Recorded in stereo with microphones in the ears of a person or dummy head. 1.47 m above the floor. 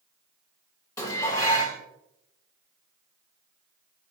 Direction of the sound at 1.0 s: 25° left (ahead or behind).